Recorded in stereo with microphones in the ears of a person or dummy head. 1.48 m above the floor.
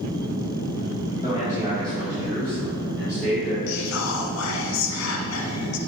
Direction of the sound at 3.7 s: 75° left (ahead or behind).